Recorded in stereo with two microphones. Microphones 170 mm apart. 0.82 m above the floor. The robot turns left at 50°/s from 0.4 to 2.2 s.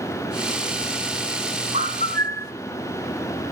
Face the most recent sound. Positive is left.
turn(degrees=-65)  # may be behind; listen again after turning